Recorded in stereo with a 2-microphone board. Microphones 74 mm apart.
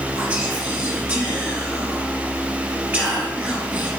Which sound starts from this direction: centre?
Whispering, at 0.1 s.